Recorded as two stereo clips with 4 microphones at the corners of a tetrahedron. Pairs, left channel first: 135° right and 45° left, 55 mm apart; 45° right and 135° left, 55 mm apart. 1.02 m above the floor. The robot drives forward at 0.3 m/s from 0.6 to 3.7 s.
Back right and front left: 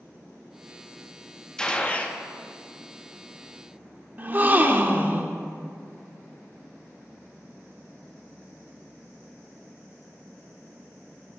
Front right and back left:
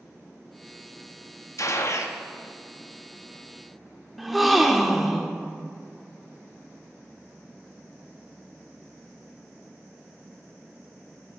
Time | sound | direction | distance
1.6 | a gunshot | 60° right | 0.7 m
4.2 | a gasp | 50° left | 0.7 m